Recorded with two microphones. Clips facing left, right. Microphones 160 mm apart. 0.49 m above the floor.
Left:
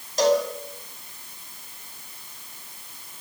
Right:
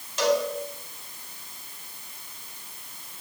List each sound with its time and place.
0.2 s a cowbell: 40° left (ahead or behind), 4 m